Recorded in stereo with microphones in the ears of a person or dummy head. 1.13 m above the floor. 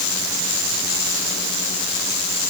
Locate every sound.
Only background noise.